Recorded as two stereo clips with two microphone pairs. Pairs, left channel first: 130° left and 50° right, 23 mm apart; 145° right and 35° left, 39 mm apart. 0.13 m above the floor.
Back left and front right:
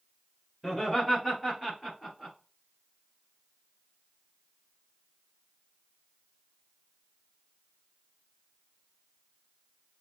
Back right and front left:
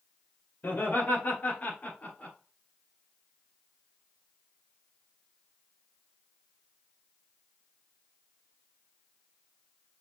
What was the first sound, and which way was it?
Laughter, 125° right.